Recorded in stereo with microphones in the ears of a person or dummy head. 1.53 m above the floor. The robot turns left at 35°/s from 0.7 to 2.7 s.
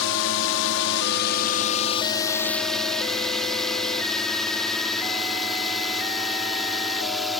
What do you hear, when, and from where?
0.0 s a drone: 65° left (ahead or behind); by 7.4 s centre (ahead or behind)